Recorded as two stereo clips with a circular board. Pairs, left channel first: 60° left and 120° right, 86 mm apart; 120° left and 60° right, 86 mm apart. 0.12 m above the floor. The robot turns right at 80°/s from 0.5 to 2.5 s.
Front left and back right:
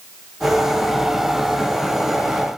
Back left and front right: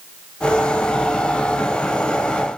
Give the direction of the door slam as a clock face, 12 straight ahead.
No door slam in this recording.